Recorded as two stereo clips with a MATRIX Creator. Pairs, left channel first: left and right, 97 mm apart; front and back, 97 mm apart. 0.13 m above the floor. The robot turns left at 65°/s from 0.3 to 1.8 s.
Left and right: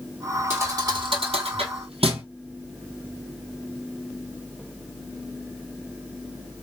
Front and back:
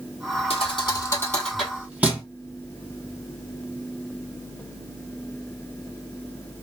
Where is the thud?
20° right, 1.4 m; by 2.2 s 105° right, 1.4 m.